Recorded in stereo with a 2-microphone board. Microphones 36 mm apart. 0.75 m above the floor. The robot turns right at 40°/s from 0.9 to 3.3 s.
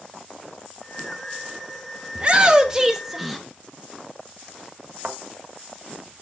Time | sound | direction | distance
2.1 | a shout | 50° right | 0.8 m
5.0 | a thud | 45° right (ahead or behind) | 1.8 m